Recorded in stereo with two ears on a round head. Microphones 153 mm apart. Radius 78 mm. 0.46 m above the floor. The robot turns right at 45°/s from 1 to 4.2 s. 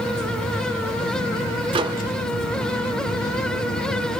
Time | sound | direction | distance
1.7 | a microwave | 30° right (ahead or behind) | 0.9 m